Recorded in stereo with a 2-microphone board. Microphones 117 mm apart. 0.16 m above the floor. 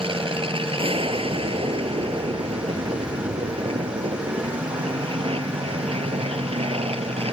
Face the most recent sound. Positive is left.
turn(degrees=-55)  # may be behind; listen again after turning